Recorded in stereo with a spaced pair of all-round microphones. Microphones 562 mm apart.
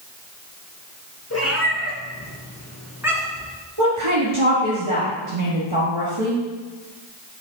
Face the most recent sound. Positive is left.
turn(degrees=-55)  # may be behind; listen again after turning